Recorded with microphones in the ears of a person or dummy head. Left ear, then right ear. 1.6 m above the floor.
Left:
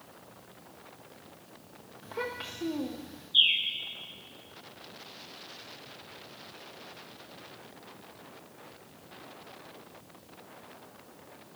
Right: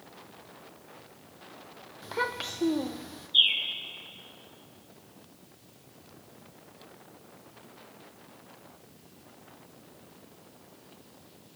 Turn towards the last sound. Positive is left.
turn(degrees=-10)  # may be behind; listen again after turning